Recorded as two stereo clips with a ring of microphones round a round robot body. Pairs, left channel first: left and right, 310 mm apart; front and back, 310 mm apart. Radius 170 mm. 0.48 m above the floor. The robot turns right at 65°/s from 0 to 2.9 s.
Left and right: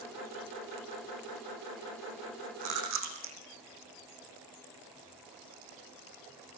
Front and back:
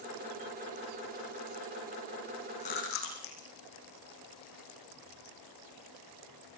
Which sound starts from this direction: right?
Chewing, at 2.6 s.